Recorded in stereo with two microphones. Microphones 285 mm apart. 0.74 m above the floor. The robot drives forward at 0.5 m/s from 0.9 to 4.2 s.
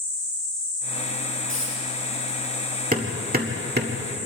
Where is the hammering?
30° right (ahead or behind), 1.9 m; by 4.0 s 40° right (ahead or behind), 1.5 m.